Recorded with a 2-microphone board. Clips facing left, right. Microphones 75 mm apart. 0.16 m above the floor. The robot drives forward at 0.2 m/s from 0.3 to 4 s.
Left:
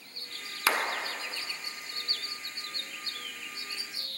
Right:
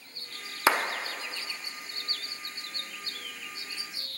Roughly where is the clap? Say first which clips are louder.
Right 4 dB; right.